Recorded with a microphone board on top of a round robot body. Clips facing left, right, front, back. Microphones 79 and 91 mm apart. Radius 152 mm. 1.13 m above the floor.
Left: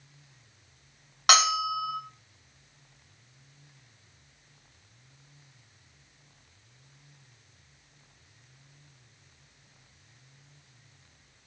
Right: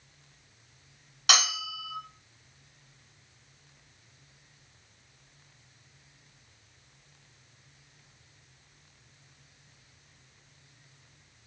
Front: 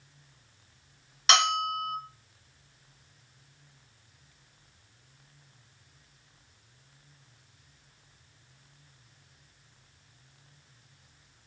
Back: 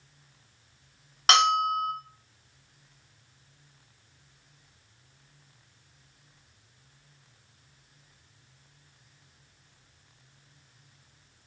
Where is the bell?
135° left, 0.9 m.